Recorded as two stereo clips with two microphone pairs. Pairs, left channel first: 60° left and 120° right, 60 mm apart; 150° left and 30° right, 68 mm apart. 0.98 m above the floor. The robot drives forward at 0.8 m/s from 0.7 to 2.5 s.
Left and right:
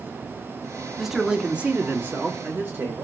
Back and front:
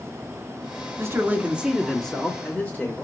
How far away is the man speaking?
About 0.9 m.